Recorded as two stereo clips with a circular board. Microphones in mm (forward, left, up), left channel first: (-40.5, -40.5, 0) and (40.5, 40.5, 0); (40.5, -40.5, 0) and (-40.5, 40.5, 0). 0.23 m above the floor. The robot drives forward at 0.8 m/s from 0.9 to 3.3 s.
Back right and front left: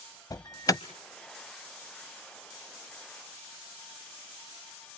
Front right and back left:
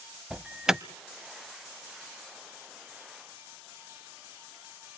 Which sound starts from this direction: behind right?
An alarm, at 0.3 s.